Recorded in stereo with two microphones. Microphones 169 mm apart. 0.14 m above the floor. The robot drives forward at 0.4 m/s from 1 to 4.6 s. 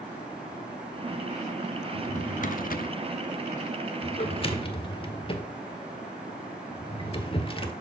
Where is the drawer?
40° left (ahead or behind), 0.7 m; by 7.7 s 30° left (ahead or behind), 0.9 m.